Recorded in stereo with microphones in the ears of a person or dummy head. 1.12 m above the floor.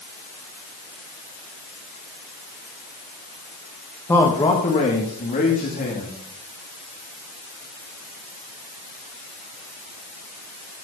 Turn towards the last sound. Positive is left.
turn(degrees=45)  # may be behind; listen again after turning